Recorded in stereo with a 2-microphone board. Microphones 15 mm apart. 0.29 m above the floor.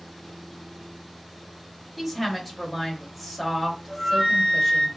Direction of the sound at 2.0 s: 5° right (ahead or behind).